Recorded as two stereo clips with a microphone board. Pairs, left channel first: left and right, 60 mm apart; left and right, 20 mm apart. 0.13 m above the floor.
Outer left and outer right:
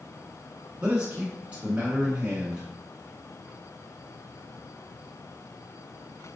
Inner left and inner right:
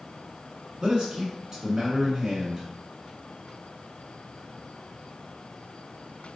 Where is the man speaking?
20° right (ahead or behind), 1.1 m.